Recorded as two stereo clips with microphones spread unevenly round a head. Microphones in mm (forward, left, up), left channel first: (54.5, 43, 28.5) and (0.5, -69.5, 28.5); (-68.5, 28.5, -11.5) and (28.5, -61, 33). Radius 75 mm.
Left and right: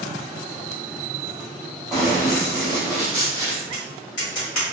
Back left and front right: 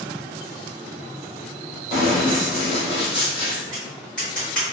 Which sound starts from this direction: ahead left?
Tapping, at 3.7 s.